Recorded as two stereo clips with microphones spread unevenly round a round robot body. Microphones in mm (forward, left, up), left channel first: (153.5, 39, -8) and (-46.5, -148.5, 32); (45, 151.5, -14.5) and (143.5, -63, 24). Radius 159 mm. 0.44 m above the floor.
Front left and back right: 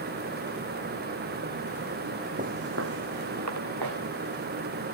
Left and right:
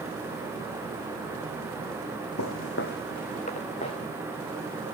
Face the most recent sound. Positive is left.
turn(degrees=-170)